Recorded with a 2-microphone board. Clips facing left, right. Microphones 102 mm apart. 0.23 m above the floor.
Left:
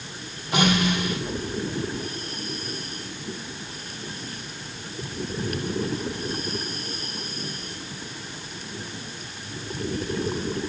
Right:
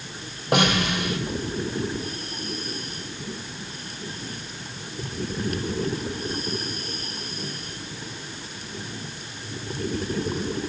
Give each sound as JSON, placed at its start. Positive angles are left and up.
{"t": 0.5, "sound": "a snare drum", "side_deg": -60, "distance_m": 6.0}